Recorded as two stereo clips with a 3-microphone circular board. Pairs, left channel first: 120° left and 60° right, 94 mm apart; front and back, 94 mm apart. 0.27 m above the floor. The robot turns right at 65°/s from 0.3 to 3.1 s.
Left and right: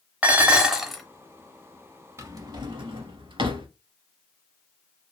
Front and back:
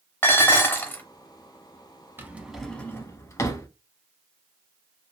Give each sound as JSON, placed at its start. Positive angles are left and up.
{"t": 0.2, "sound": "dishes clattering", "azimuth_deg": -15, "distance_m": 0.6}
{"t": 2.2, "sound": "a drawer", "azimuth_deg": -115, "distance_m": 0.7}